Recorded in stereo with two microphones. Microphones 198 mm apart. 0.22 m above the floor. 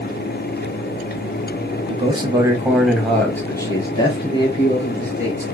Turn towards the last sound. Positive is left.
turn(degrees=35)  # may be behind; listen again after turning